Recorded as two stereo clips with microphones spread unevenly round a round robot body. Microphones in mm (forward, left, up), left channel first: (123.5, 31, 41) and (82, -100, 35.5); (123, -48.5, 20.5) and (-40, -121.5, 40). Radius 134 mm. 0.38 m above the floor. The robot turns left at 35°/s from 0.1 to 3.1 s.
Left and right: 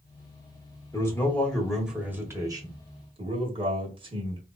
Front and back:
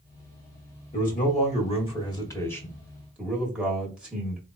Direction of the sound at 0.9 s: 5° left.